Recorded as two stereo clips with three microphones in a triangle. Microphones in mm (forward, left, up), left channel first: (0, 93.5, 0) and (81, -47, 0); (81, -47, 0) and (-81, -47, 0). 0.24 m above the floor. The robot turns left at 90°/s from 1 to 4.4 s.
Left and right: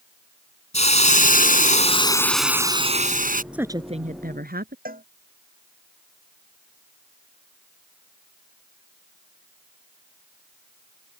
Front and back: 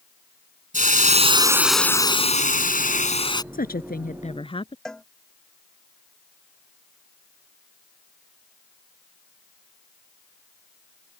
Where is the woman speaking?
25° left; by 4.8 s 55° right.